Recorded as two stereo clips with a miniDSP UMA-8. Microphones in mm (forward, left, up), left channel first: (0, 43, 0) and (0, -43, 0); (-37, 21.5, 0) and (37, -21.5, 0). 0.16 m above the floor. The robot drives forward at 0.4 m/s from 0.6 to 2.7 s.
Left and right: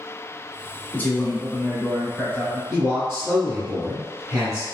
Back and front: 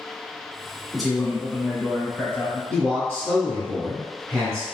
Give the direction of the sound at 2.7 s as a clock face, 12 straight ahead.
5 o'clock.